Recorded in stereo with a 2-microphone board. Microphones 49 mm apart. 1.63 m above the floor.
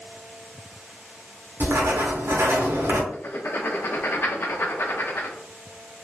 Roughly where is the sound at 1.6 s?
Right.